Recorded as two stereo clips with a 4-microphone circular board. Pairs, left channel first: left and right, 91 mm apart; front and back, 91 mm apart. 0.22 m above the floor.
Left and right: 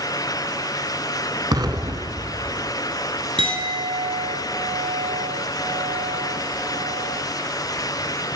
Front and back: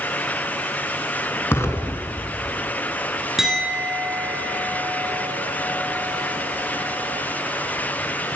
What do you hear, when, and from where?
1.5 s an explosion: 60° right, 1.1 m
3.4 s a clink: 95° right, 2.5 m